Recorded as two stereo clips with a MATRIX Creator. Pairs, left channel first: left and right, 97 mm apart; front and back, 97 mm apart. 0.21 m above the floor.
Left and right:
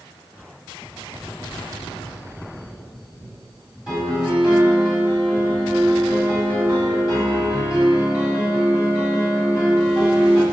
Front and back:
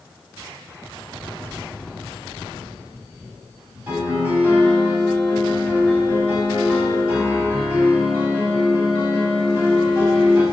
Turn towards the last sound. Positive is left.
turn(degrees=-160)